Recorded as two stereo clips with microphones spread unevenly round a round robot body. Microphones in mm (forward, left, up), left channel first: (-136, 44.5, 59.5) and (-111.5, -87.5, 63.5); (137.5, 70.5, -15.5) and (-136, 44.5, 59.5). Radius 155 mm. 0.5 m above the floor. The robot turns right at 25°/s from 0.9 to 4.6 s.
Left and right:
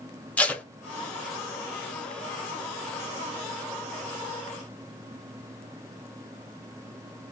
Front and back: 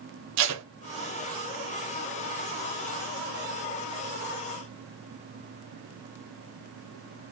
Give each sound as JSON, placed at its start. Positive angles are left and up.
{"t": 0.4, "sound": "tape being pulled", "azimuth_deg": 175, "distance_m": 1.0}